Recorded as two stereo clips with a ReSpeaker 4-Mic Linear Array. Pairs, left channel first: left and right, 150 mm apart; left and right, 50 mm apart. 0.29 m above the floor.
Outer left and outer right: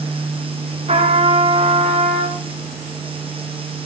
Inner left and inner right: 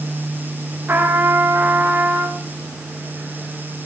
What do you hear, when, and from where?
0.9 s a trumpet: 45° right (ahead or behind), 1.5 m